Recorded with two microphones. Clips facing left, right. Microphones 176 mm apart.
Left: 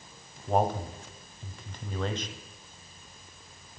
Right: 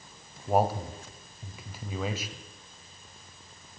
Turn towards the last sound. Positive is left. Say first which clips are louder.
# right 1 dB
turn(degrees=-5)  # may be behind; listen again after turning